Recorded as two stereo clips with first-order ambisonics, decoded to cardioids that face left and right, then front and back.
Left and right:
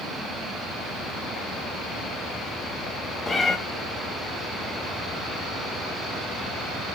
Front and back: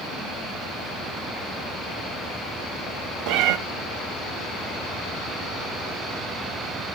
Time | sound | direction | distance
3.3 | a cat meowing | 165° left | 0.9 m